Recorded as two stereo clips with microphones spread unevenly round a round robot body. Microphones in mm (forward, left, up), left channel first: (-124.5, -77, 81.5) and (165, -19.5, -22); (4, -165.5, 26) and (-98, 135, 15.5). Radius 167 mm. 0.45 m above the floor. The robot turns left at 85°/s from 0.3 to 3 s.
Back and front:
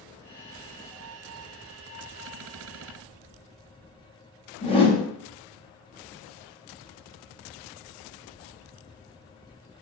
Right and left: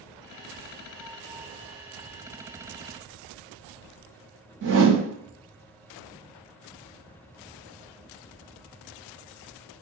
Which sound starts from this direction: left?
A whoosh, at 4.6 s.